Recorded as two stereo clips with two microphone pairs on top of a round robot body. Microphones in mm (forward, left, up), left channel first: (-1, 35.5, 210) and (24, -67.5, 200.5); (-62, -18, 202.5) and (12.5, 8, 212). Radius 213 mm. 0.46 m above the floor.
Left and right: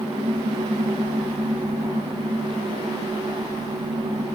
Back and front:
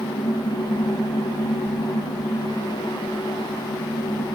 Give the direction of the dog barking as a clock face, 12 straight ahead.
No dog barking in this recording.